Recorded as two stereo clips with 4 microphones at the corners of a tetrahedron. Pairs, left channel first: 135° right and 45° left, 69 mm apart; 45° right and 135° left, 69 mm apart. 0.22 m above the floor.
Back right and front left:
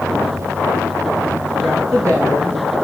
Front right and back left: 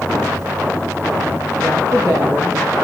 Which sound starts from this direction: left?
A woman speaking, at 1.6 s.